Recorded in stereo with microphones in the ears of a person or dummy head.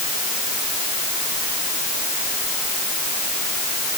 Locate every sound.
Only background noise.